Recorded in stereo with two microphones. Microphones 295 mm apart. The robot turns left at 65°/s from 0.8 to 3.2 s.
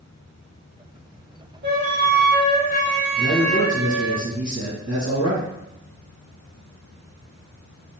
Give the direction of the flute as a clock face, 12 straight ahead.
5 o'clock.